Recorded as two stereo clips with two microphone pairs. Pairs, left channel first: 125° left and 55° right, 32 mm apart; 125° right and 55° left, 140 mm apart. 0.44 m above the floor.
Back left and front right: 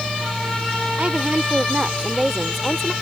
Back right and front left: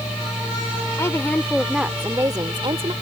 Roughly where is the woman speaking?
Ahead right.